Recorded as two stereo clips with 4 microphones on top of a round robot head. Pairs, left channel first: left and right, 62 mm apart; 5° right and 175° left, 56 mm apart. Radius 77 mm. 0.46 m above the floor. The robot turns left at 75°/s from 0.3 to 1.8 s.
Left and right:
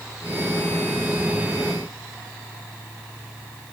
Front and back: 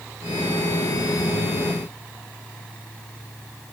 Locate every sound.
Only background noise.